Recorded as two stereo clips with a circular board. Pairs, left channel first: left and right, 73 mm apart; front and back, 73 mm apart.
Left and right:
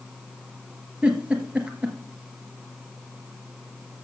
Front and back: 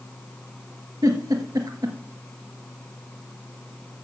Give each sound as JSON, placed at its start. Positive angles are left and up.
{"t": 1.0, "sound": "a giggle", "azimuth_deg": -165, "distance_m": 1.8}